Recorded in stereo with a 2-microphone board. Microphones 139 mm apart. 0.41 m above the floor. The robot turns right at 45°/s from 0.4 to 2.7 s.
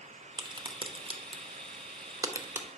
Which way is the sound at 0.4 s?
35° right (ahead or behind).